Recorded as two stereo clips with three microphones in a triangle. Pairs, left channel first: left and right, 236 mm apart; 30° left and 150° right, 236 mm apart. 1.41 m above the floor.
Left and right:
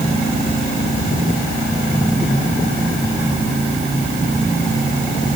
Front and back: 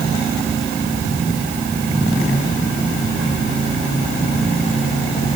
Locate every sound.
Only background noise.